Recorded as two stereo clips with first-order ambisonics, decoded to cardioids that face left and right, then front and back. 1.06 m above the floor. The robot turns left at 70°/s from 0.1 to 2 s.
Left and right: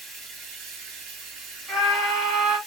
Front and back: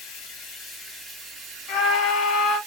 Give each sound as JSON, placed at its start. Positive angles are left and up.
{"t": 0.0, "sound": "running water", "azimuth_deg": -20, "distance_m": 1.8}
{"t": 1.7, "sound": "a scream", "azimuth_deg": -25, "distance_m": 1.5}